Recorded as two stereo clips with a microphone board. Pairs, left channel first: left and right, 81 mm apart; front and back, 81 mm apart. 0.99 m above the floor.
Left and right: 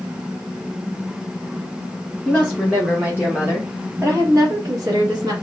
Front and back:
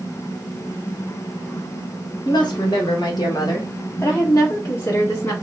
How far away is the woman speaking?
About 1.3 m.